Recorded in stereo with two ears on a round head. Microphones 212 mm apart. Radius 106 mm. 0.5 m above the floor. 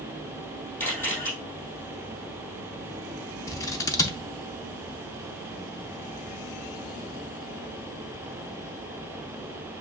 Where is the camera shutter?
10° left (ahead or behind), 3 m.